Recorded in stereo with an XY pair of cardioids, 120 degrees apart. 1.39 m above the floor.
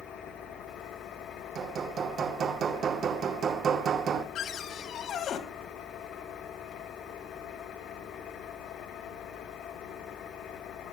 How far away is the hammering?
About 3 m.